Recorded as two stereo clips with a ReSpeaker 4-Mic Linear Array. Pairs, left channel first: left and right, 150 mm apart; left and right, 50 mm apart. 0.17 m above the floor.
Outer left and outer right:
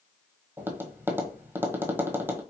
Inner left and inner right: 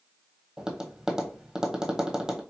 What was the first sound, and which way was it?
Tapping, 15° right (ahead or behind).